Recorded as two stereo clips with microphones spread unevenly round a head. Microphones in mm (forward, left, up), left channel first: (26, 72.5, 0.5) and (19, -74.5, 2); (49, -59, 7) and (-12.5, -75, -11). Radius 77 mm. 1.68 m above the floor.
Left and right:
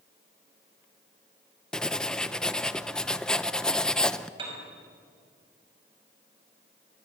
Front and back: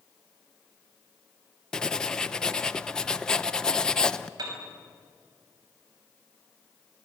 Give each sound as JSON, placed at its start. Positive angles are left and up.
{"t": 1.7, "sound": "writing", "azimuth_deg": 5, "distance_m": 0.8}
{"t": 4.4, "sound": "a piano", "azimuth_deg": -150, "distance_m": 5.5}